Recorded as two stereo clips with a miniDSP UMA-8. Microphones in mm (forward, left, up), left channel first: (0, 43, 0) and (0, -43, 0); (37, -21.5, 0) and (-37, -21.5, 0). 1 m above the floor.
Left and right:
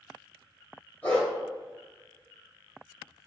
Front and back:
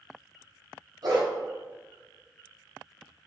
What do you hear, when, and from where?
1.0 s a dog barking: 160° left, 1.8 m